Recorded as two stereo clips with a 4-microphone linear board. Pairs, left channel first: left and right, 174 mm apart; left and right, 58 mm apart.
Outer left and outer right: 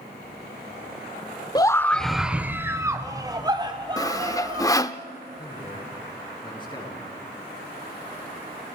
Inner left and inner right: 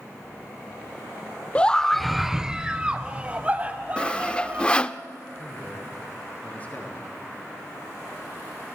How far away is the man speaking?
About 7.5 m.